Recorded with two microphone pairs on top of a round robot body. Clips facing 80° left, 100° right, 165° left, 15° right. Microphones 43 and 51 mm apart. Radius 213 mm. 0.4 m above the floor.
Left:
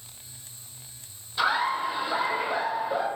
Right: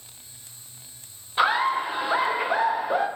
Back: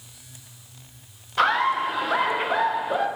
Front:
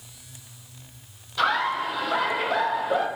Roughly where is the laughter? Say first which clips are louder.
Right 3 dB, back 3 dB; behind right.